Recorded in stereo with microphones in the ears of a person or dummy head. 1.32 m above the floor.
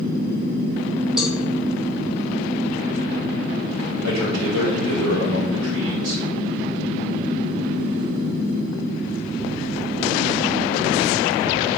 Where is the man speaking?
90° right, 2.5 m.